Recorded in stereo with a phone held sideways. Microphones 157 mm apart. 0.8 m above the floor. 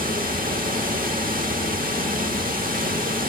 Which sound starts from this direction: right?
Running water, at 0.0 s.